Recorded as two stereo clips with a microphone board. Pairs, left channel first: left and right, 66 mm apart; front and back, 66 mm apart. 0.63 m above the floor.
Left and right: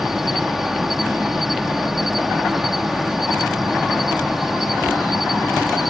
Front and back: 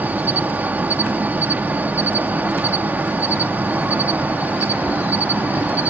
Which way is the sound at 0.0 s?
175° right.